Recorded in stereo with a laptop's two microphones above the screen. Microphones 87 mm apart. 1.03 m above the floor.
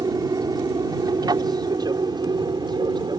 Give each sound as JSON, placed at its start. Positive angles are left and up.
{"t": 0.0, "sound": "an aircraft", "side_deg": -50}